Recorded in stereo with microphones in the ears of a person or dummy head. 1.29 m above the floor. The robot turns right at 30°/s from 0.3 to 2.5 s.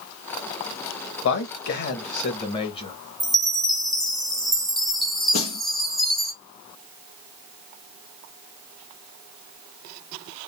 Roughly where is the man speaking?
Left.